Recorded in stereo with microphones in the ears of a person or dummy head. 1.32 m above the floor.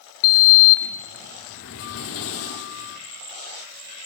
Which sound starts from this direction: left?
A sliding door, at 0.2 s.